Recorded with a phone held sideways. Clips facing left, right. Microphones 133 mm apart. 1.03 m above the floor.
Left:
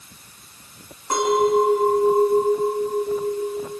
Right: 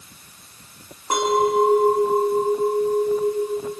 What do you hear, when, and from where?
1.1 s a clink: 20° right (ahead or behind), 6.5 m